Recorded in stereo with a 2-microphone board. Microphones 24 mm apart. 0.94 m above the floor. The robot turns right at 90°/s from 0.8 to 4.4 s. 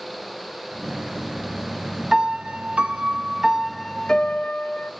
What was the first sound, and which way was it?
A piano, 145° right.